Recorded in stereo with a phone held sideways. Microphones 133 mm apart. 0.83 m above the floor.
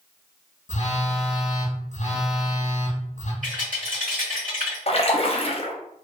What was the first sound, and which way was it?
A phone buzzing, 60° left (ahead or behind).